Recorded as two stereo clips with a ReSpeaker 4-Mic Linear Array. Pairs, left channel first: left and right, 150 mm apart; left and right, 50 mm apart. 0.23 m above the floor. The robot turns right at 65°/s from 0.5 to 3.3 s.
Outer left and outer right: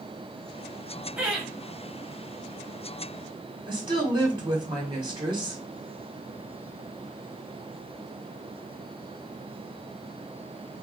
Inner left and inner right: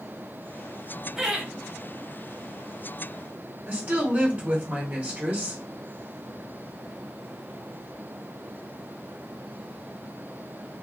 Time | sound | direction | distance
1.2 | laughter | 10° right (ahead or behind) | 1.1 m
3.7 | a woman speaking | 30° right (ahead or behind) | 1.5 m